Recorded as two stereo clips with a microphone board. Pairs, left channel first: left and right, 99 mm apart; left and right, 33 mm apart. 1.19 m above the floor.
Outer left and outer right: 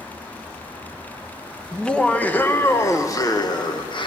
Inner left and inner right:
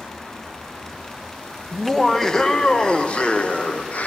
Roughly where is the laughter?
Centre.